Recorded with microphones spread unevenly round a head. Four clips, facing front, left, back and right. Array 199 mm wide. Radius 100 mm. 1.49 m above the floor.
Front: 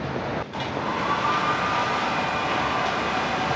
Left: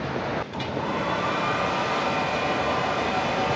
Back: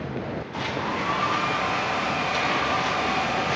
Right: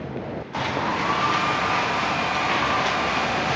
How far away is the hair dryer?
About 4 m.